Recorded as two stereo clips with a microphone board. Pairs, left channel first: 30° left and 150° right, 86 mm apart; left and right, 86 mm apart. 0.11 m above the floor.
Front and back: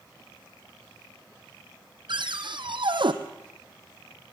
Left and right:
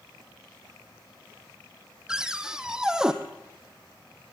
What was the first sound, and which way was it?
A cupboard door, 170° right.